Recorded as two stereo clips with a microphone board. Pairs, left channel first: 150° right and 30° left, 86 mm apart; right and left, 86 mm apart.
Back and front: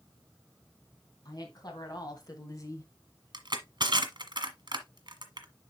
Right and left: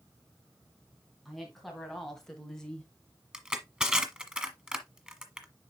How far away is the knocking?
I don't hear knocking.